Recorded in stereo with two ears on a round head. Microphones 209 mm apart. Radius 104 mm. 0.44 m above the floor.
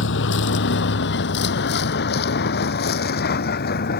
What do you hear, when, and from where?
0.0 s a vehicle: 55° left (ahead or behind); by 4.0 s 40° left (ahead or behind)